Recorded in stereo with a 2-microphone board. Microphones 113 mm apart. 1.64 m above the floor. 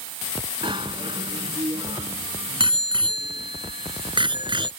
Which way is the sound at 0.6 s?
45° right (ahead or behind).